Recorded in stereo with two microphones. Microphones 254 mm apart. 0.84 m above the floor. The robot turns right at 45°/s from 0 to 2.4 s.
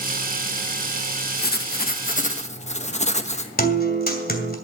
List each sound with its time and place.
1.4 s writing: 90° left, 1.0 m; by 3.5 s 135° left, 1.0 m
3.6 s a guitar: 35° left (ahead or behind), 2.5 m